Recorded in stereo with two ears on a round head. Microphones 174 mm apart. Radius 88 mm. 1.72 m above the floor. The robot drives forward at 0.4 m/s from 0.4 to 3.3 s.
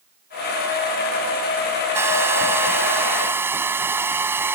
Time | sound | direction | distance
1.9 | a hair dryer | 15° right (ahead or behind) | ?